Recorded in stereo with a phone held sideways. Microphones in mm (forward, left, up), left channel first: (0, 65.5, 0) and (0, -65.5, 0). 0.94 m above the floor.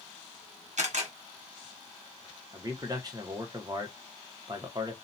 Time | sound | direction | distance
0.8 | a camera shutter | 60° right (ahead or behind) | 0.9 m
2.5 | a man speaking | 30° right (ahead or behind) | 0.9 m